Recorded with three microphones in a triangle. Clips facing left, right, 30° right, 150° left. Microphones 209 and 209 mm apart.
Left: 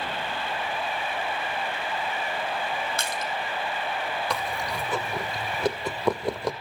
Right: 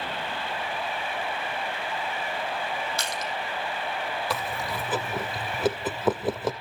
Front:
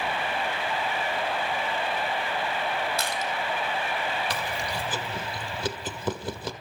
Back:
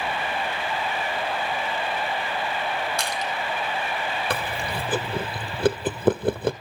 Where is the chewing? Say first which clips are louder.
Left 1 dB, back 3 dB; 175° right, 1.5 m.